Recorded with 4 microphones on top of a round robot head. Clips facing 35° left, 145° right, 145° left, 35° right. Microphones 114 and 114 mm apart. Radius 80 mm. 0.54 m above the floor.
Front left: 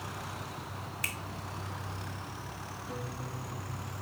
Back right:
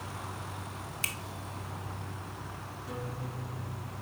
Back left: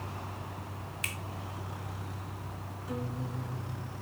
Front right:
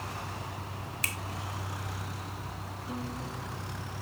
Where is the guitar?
140° right, 7 m.